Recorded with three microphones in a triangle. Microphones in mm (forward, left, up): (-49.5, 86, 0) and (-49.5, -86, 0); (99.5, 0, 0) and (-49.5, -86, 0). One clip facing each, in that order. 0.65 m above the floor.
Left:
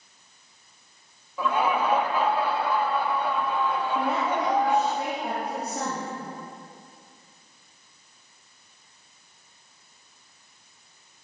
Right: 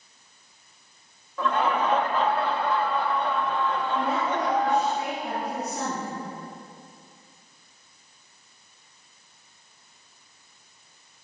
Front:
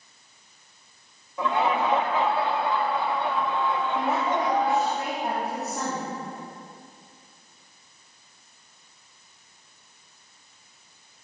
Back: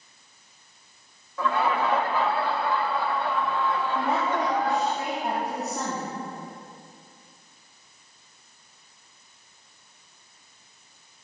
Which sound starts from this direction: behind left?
A woman speaking, at 4.0 s.